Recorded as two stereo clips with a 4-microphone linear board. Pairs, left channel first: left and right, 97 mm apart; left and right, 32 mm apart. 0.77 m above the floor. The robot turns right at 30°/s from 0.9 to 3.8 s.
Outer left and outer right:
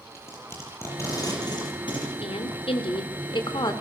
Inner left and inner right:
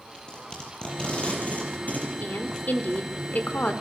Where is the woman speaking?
85° left, 2.5 m; by 3.7 s 130° left, 2.5 m.